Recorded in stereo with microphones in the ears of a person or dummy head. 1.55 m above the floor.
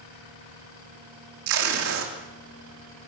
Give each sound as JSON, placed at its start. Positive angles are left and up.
{"t": 1.5, "sound": "tape being pulled", "side_deg": -75, "distance_m": 4.0}